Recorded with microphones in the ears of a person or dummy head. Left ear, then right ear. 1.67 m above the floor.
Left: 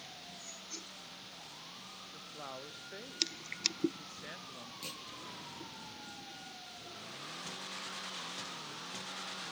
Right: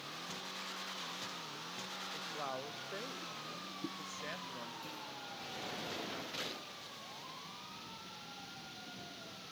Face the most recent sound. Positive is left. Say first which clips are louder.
# left 2 dB
turn(degrees=50)  # may be behind; listen again after turning